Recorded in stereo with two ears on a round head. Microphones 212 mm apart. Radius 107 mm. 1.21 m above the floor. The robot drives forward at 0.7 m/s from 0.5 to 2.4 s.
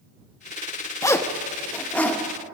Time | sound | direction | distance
1.0 | a zipper | 15° left (ahead or behind) | 0.7 m